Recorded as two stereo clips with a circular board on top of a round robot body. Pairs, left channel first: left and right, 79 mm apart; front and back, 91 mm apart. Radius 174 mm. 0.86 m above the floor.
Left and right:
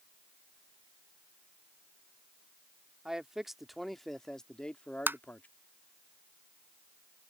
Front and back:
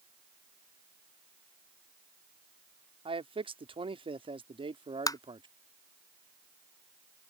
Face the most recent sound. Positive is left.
turn(degrees=-30)